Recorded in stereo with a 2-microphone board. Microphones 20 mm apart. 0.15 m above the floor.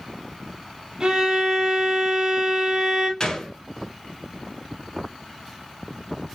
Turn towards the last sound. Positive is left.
turn(degrees=35)  # may be behind; listen again after turning